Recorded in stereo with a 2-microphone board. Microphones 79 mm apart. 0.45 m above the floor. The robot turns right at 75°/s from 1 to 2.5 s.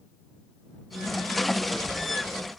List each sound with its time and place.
Only background noise.